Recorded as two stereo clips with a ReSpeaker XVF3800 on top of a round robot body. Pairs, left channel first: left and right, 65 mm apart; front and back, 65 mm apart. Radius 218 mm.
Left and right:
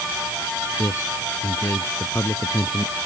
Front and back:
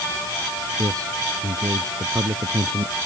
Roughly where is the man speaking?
Behind left.